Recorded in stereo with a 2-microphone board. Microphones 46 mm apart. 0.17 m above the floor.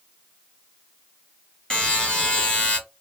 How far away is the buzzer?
About 1.3 m.